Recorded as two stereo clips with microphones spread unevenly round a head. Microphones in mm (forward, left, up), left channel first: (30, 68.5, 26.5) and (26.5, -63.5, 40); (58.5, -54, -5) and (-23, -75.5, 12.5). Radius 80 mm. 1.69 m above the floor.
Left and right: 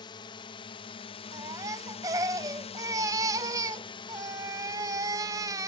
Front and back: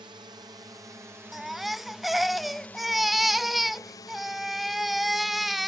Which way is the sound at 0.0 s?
140° left.